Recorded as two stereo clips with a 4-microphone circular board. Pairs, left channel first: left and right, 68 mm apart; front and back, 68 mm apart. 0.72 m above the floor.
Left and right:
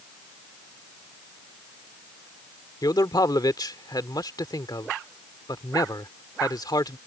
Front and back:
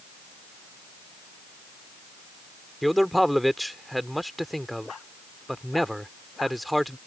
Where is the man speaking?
90° left.